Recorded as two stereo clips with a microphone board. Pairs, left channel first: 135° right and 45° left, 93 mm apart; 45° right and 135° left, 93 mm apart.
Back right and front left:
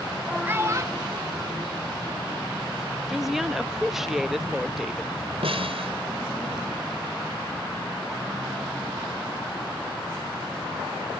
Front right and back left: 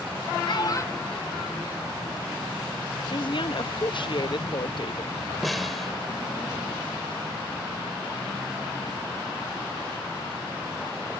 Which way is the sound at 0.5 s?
20° right.